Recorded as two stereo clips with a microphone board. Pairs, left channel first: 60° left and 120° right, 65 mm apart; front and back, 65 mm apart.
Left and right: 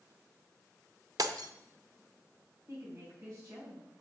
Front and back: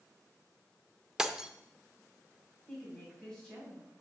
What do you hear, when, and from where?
1.2 s breaking glass: 100° right, 0.6 m
2.7 s a woman speaking: 80° right, 4.5 m